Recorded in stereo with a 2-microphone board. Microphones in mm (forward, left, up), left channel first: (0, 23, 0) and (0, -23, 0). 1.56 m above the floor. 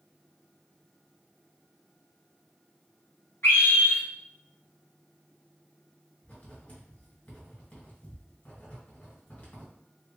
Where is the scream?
65° left (ahead or behind), 2 m.